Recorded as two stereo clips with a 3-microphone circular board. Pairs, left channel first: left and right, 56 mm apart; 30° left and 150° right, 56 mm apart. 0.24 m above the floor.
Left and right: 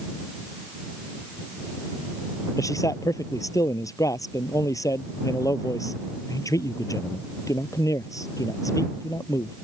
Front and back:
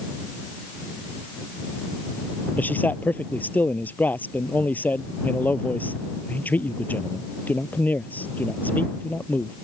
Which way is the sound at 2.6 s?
90° left.